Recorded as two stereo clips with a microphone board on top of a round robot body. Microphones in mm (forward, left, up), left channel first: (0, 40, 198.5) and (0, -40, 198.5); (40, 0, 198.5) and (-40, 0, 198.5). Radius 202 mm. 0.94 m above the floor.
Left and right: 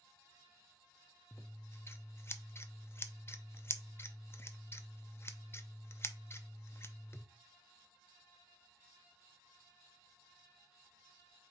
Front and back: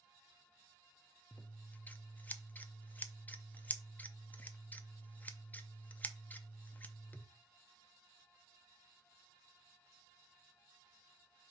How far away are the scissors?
About 0.7 m.